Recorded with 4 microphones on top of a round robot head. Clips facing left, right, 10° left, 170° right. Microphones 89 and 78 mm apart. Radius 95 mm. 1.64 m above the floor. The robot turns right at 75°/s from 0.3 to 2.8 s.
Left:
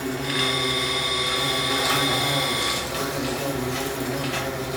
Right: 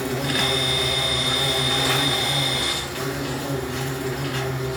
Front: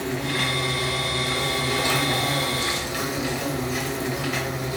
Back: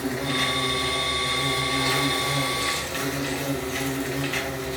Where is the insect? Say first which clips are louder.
Right 2 dB, even; 100° right, 0.9 m; by 4.8 s 85° left, 0.9 m.